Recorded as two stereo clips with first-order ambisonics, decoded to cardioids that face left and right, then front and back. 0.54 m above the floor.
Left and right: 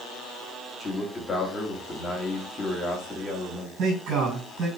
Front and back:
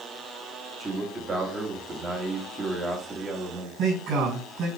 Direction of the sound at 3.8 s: 130° right.